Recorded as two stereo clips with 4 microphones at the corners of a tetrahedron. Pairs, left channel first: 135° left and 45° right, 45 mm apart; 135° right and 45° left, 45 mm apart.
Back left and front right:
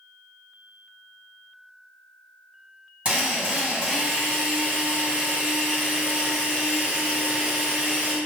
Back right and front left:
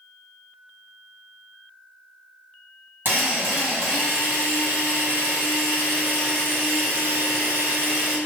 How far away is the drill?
About 1.7 m.